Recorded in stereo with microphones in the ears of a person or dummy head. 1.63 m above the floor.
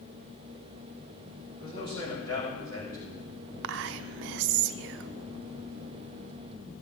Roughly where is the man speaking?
Left.